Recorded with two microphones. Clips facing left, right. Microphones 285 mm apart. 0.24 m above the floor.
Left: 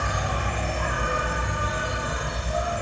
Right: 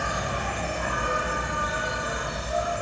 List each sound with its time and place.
0.0 s an insect: 65° left (ahead or behind), 0.8 m